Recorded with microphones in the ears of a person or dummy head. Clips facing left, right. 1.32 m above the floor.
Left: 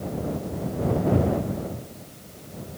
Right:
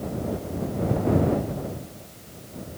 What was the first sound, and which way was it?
Only background noise.